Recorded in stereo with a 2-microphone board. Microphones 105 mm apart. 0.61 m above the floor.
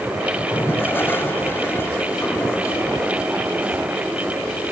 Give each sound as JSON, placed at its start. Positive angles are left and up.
{"t": 0.5, "sound": "a toilet flushing", "side_deg": 20, "distance_m": 2.0}